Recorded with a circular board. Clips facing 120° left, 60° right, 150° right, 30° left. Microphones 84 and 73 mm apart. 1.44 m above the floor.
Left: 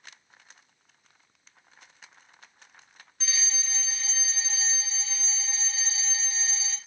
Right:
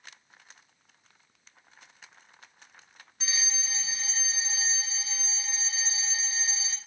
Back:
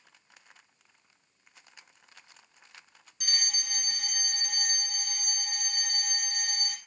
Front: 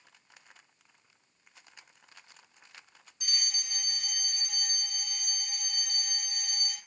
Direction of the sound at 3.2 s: 135° right.